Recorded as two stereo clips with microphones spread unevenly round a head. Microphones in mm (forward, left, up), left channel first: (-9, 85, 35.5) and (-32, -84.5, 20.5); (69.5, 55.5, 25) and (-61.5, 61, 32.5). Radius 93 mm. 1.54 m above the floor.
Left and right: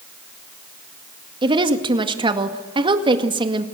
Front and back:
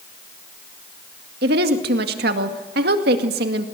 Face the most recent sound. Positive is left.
turn(degrees=-165)